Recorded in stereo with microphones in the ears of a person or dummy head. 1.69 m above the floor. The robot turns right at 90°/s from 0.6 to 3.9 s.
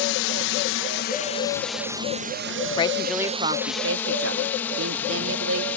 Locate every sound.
0.0 s a drone: 60° left (ahead or behind); by 5.8 s 10° left (ahead or behind)
2.8 s a woman speaking: 150° left; by 5.7 s 110° right